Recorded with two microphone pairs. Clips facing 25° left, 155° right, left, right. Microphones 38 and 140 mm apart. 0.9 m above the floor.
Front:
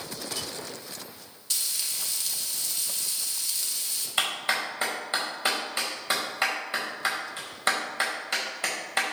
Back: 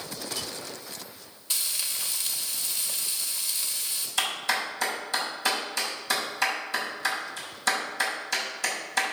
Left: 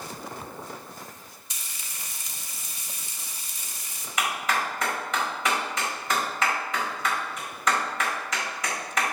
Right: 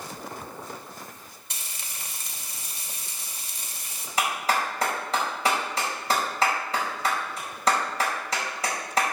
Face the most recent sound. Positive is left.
turn(degrees=-30)